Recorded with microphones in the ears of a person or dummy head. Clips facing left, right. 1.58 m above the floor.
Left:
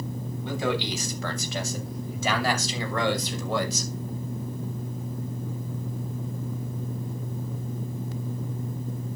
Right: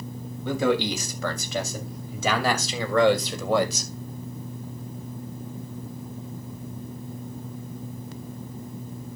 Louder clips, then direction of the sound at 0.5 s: Right 5 dB; 80° right.